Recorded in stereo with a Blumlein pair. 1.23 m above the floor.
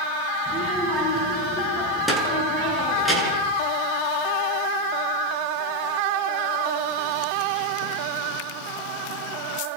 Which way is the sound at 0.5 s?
5° left.